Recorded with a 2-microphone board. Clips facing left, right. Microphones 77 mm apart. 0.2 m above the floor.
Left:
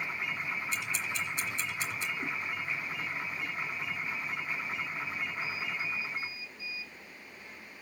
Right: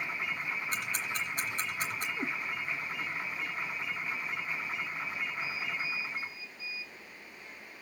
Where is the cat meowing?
40° right (ahead or behind), 2.5 m.